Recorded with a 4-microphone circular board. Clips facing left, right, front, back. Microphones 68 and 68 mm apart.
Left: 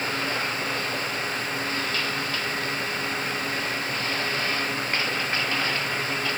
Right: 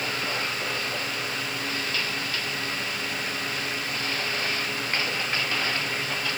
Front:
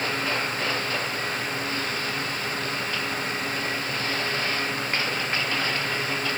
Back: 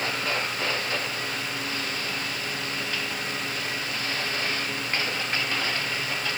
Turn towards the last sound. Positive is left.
No sound to turn to.